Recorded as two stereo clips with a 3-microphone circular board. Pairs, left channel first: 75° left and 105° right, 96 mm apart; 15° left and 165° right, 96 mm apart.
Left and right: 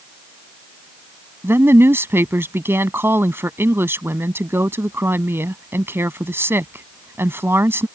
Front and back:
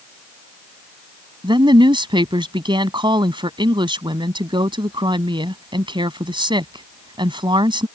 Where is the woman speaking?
165° right.